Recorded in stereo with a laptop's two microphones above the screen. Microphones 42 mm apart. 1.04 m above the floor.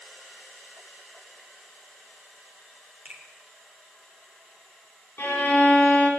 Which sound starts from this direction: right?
A finger snap, at 3.0 s.